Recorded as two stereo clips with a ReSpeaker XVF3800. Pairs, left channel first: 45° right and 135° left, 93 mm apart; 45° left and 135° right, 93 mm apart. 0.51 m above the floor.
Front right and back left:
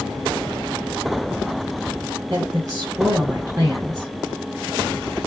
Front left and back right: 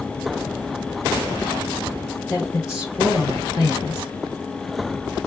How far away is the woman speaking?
About 1.0 m.